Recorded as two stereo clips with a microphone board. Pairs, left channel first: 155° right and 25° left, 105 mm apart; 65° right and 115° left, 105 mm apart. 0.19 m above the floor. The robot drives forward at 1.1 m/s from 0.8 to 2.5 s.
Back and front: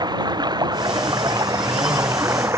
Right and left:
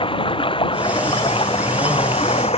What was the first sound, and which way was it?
Running water, 30° right.